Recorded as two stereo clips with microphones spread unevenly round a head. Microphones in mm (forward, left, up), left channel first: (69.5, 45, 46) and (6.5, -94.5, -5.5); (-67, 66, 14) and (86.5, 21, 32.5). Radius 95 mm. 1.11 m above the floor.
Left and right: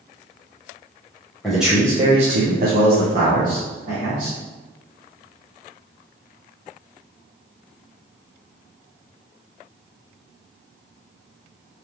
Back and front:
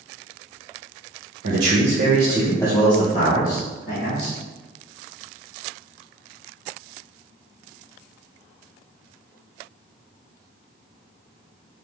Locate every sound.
1.4 s a man speaking: 25° right, 1.3 m; by 4.4 s 160° right, 2.5 m